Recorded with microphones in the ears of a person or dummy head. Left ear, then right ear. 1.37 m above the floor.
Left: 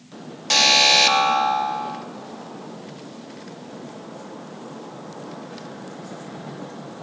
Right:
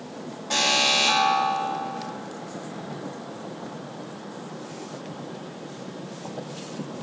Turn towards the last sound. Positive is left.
turn(degrees=75)  # may be behind; listen again after turning